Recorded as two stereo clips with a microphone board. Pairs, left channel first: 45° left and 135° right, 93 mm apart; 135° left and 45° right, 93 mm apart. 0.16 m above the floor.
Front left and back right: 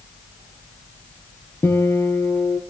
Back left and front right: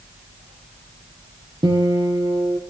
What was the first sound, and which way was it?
A guitar, 15° right.